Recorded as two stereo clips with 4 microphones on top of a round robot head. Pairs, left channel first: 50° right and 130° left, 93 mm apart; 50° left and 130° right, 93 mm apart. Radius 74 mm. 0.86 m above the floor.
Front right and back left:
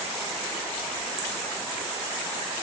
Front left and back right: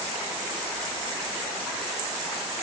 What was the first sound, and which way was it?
Only background noise.